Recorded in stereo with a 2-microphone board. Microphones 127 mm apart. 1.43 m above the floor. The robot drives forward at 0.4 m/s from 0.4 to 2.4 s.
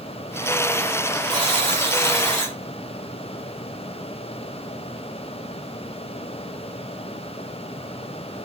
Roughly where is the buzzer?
Right.